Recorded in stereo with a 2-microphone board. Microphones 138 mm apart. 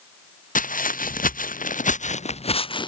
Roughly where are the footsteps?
Left.